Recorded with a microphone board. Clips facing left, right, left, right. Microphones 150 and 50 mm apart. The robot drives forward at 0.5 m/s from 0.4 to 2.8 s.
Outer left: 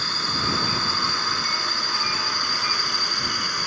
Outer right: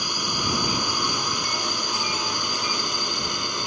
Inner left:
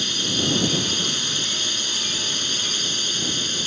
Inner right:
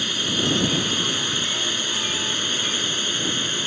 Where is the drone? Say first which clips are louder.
Outer right 1 dB, inner right 1 dB; 15° right (ahead or behind); by 3.7 s 20° right (ahead or behind).